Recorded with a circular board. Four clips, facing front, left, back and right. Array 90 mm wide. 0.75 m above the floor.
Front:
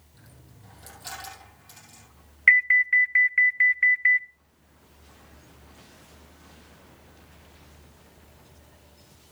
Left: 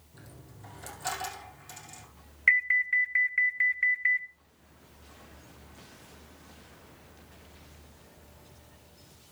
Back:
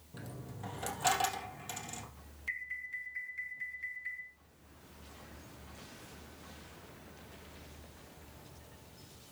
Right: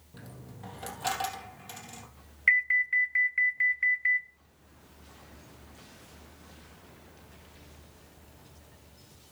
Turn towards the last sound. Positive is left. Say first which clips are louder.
# even, front 23 dB
turn(degrees=5)